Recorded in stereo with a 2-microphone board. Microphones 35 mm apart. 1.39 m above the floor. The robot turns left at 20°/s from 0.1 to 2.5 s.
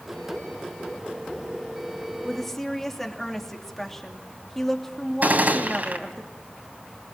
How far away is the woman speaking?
About 3 m.